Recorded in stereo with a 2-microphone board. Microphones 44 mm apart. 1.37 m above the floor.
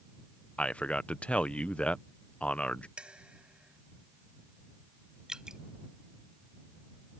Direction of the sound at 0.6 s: 30° left (ahead or behind).